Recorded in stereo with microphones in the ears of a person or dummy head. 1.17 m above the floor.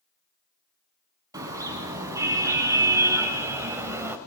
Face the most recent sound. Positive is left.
turn(degrees=-5)  # may be behind; listen again after turning